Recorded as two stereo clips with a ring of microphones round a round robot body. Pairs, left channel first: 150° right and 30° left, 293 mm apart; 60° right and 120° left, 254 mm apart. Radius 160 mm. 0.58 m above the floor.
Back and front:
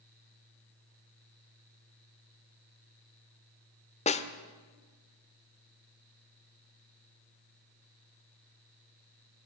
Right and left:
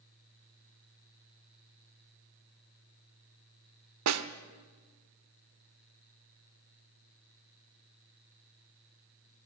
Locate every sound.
4.1 s a snare drum: 140° left, 1.1 m